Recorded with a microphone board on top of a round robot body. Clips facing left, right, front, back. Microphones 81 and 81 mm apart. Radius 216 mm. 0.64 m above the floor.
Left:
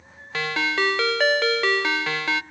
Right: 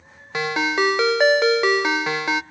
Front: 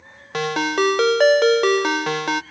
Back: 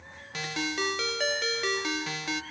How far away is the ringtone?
About 0.6 m.